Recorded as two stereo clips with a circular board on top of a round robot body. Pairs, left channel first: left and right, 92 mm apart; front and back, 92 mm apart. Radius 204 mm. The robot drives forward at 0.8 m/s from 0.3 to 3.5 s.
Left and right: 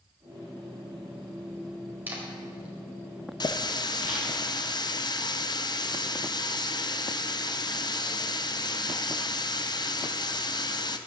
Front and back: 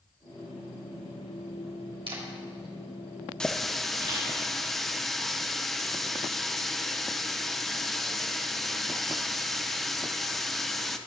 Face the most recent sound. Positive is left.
turn(degrees=85)